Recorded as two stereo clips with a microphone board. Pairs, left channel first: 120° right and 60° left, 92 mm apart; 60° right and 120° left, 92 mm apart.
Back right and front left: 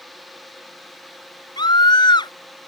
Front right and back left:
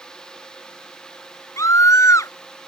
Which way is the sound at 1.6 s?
105° right.